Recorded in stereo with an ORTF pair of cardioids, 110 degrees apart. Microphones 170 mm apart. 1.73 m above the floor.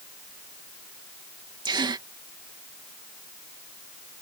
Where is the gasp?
25° right.